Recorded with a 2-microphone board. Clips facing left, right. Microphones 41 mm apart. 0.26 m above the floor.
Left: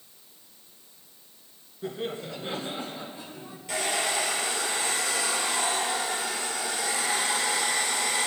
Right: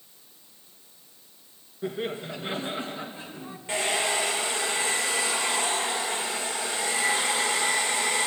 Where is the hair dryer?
25° right (ahead or behind), 5 m.